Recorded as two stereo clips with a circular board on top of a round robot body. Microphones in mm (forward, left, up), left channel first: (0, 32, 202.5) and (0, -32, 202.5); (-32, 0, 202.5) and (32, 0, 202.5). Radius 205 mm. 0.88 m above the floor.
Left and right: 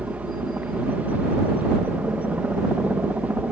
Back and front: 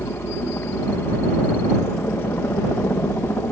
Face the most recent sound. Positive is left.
turn(degrees=-145)